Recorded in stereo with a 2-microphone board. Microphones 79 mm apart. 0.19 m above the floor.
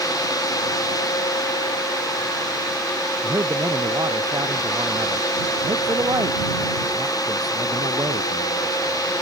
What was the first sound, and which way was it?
A man speaking, 55° right (ahead or behind).